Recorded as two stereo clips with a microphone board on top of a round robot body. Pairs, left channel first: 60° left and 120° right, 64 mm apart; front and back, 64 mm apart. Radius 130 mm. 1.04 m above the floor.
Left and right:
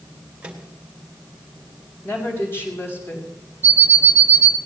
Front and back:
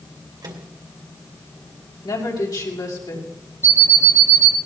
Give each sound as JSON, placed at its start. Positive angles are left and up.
{"t": 0.4, "sound": "a microwave", "azimuth_deg": 170, "distance_m": 2.5}
{"t": 2.0, "sound": "a woman speaking", "azimuth_deg": 5, "distance_m": 5.5}
{"t": 3.6, "sound": "an alarm clock", "azimuth_deg": -65, "distance_m": 0.9}